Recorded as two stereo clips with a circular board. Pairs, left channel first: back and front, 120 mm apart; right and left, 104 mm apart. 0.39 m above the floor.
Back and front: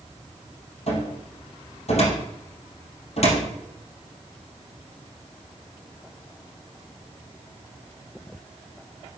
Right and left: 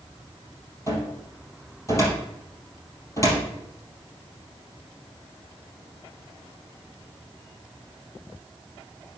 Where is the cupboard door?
150° right, 3 m.